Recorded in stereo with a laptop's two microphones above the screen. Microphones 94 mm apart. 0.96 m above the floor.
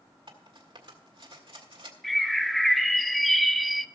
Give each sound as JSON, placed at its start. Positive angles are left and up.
{"t": 0.3, "sound": "cutlery clinking", "side_deg": -70, "distance_m": 1.7}
{"t": 2.0, "sound": "a bird", "side_deg": 5, "distance_m": 0.8}